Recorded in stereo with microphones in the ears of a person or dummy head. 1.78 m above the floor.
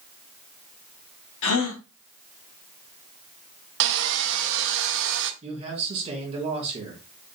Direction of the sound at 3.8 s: 70° right (ahead or behind).